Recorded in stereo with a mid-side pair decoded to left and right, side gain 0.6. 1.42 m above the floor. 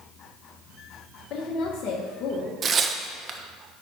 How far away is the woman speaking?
About 1.1 m.